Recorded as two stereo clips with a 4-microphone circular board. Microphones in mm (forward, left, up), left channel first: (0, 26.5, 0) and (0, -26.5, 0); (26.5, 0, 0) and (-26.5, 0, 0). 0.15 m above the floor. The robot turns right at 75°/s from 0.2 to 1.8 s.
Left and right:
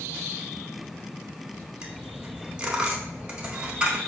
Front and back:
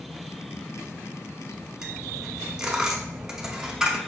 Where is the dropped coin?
120° right, 0.7 m.